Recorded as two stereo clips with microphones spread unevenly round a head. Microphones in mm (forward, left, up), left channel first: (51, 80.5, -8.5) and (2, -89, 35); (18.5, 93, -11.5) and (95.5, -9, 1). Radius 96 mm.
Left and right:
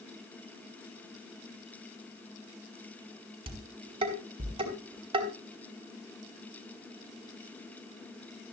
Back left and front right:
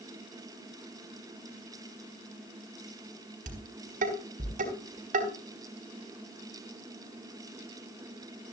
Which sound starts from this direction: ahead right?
Dishes clattering, at 3.5 s.